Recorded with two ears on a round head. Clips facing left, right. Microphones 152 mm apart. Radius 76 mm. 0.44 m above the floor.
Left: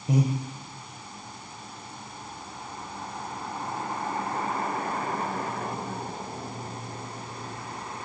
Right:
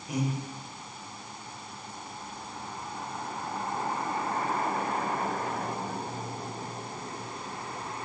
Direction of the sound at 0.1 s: 25° left (ahead or behind).